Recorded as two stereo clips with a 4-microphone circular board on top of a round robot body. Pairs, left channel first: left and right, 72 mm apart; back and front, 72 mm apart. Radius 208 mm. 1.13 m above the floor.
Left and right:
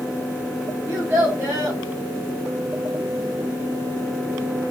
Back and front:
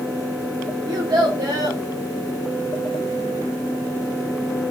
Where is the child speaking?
30° right, 0.6 m.